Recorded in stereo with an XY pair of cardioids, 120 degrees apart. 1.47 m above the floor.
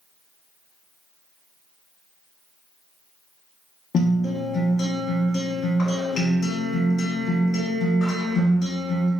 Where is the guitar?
50° left, 1.2 m.